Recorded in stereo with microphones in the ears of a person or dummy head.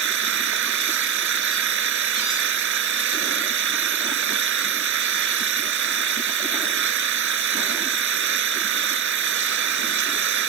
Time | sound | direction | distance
0.0 | an engine running | 70° right (ahead or behind) | ?